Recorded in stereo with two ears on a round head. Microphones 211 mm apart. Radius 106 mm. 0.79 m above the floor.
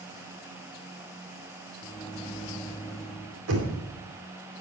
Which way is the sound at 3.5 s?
75° right (ahead or behind).